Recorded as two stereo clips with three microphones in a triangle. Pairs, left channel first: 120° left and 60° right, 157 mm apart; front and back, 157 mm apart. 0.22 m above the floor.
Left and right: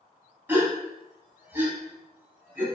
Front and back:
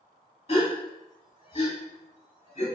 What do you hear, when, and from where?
0.5 s a gasp: 10° left, 0.9 m